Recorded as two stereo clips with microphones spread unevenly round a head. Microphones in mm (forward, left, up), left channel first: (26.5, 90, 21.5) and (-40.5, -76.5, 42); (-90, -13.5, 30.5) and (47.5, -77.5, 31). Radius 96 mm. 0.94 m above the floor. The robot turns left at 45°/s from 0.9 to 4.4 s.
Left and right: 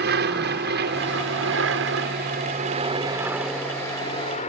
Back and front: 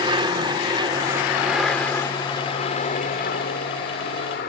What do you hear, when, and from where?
0.0 s an aircraft: 85° right; by 4.5 s 120° left